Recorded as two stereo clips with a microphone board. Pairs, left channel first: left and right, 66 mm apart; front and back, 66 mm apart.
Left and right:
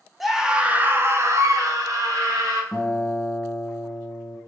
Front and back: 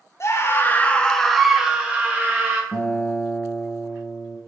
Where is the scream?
Straight ahead, 0.6 m; by 2.6 s 120° right, 1.2 m.